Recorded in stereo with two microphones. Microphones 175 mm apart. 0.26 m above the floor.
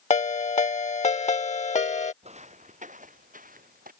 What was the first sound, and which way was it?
A ringtone, 40° left (ahead or behind).